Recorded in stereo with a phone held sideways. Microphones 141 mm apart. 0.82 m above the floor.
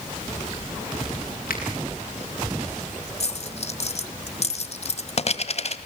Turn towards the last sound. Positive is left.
turn(degrees=50)  # may be behind; listen again after turning